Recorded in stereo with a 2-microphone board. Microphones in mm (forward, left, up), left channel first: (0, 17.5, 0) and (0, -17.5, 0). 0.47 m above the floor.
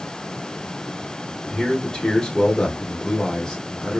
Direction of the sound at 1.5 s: 20° left (ahead or behind).